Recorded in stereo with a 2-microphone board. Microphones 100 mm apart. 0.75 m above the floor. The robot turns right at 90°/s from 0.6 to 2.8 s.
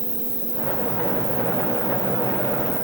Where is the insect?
65° right, 0.8 m; by 2.9 s 135° left, 0.8 m.